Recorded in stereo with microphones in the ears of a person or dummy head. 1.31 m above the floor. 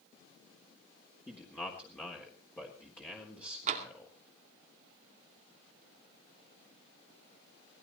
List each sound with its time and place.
1.3 s a man speaking: 10° left (ahead or behind), 3.5 m
3.7 s tapping: 40° right (ahead or behind), 2.5 m